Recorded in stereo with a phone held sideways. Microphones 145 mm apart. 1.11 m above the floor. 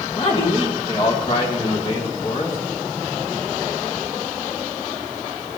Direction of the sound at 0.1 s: 40° left (ahead or behind).